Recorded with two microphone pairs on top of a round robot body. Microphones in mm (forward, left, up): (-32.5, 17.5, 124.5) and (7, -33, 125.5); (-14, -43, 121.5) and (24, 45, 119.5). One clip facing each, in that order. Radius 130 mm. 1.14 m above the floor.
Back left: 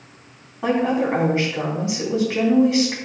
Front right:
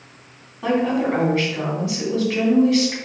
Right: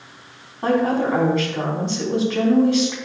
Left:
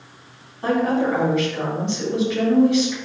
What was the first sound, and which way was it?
A woman speaking, 165° right.